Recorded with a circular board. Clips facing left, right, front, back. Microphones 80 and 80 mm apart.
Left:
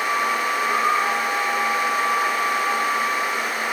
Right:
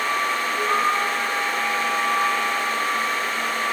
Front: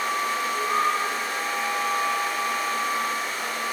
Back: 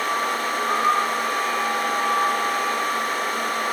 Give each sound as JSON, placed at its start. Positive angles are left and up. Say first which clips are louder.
{"t": 0.5, "sound": "a flute", "louder": "even, back 4 dB", "azimuth_deg": 25, "distance_m": 7.5}